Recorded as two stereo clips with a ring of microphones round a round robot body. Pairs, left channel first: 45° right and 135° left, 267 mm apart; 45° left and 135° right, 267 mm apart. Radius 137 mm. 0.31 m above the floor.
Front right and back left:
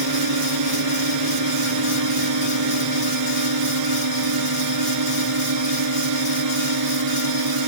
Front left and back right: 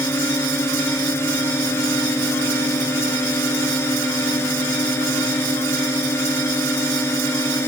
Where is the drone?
125° left.